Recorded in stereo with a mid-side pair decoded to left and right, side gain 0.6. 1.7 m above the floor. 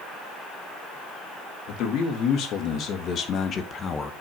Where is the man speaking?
65° left, 3.5 m; by 4.1 s 35° left, 1.9 m.